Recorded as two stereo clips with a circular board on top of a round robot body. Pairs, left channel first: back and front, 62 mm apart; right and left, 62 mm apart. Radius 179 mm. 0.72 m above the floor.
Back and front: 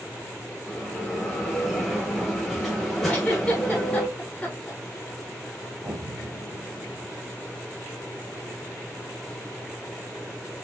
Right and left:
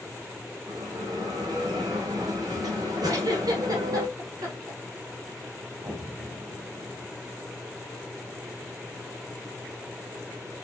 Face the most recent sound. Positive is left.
turn(degrees=40)